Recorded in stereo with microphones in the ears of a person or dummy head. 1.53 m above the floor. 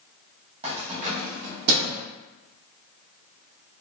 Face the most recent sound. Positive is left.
turn(degrees=-65)  # may be behind; listen again after turning